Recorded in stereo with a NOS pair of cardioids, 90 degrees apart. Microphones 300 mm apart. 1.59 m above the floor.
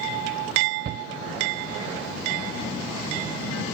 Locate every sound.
0.8 s a shout: 35° right, 0.5 m